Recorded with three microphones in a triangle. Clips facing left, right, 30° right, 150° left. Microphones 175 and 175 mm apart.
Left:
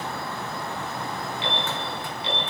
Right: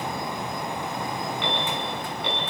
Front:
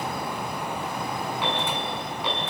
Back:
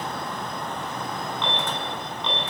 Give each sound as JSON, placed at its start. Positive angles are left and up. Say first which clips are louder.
{"t": 1.4, "sound": "an alarm", "louder": "even, front 1 dB", "azimuth_deg": -110, "distance_m": 5.5}